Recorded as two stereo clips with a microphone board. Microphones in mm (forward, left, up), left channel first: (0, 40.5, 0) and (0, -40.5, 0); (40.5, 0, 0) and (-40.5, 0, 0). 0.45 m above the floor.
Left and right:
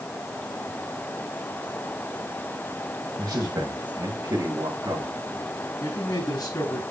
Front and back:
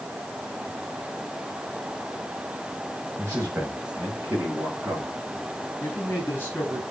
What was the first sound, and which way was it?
A man speaking, 120° right.